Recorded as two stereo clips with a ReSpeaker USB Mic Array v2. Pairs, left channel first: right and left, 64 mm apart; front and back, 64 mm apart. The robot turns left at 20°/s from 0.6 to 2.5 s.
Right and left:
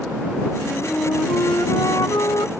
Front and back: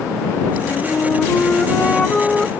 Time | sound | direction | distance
0.6 | a flute | 45° right | ?